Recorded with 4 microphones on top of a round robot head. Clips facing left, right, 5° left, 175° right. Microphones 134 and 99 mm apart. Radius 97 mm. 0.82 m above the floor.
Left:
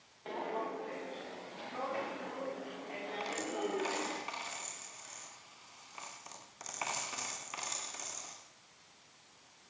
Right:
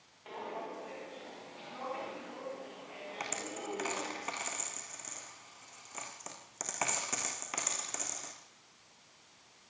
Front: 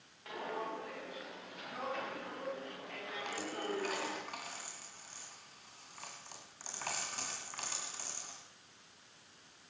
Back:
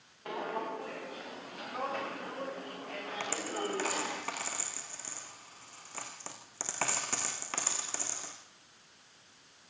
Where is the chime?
I don't hear a chime.